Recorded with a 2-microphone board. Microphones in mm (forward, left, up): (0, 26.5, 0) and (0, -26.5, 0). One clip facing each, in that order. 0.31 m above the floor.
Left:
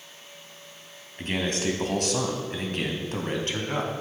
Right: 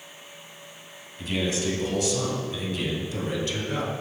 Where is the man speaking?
45° left (ahead or behind), 2.0 m; by 3.9 s 40° left (ahead or behind), 2.5 m.